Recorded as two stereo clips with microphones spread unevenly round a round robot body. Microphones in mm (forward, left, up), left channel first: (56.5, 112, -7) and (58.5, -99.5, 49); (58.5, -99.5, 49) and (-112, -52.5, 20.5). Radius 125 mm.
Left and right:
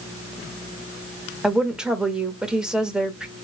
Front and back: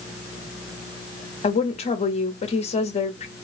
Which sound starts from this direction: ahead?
A woman speaking, at 1.4 s.